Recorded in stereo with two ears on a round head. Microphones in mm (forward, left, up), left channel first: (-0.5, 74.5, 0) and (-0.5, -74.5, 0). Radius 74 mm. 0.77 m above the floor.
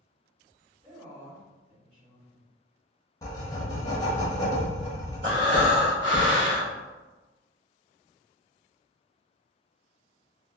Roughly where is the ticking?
I don't hear ticking.